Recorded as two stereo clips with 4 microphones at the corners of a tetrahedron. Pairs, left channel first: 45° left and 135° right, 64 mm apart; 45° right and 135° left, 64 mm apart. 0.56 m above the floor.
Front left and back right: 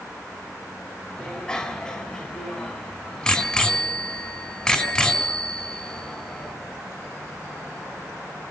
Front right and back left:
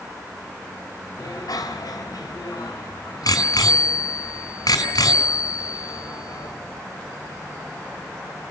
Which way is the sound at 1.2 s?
35° right.